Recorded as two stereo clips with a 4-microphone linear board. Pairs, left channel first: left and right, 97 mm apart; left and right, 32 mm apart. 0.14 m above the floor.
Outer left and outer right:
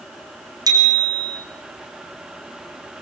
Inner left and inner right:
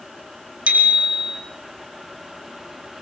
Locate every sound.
0.7 s a bicycle bell: 40° right (ahead or behind), 4.5 m